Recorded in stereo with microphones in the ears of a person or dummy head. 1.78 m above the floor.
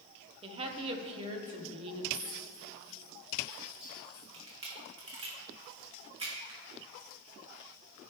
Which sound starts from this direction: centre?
A clink, at 2.1 s.